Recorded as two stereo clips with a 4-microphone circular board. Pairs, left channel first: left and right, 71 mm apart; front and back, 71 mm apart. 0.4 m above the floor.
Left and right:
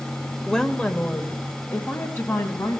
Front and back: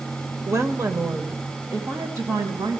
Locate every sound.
0.5 s a woman speaking: 170° left, 1.2 m; by 2.8 s 140° left, 3 m